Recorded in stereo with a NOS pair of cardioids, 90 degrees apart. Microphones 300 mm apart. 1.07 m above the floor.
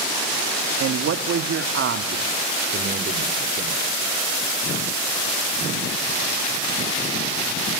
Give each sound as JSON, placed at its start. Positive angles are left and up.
{"t": 0.8, "sound": "a man speaking", "azimuth_deg": -55, "distance_m": 1.7}